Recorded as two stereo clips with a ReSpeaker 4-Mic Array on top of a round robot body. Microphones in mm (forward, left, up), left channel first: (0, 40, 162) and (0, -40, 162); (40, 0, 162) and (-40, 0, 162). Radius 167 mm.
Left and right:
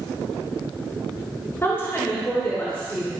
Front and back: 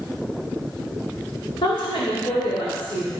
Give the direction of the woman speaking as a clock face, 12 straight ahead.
11 o'clock.